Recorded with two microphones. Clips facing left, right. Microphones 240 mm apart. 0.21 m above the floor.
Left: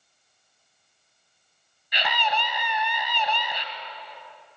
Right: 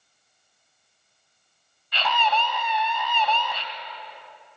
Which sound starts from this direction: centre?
A scream, at 1.9 s.